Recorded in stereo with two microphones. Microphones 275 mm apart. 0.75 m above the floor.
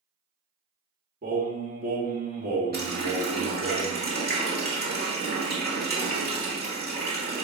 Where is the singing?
35° right (ahead or behind), 1.3 m.